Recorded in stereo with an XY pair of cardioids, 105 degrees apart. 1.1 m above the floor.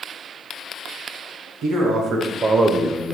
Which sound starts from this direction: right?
A man speaking, at 1.6 s.